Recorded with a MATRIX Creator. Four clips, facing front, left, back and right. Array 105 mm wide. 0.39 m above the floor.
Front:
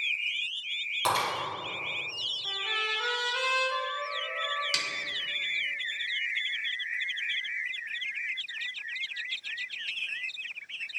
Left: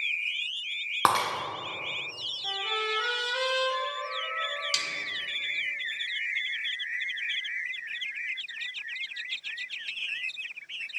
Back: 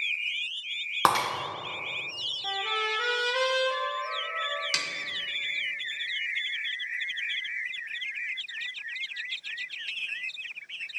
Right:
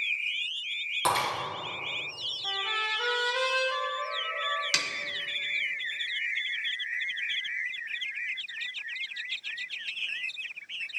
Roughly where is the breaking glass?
Behind left.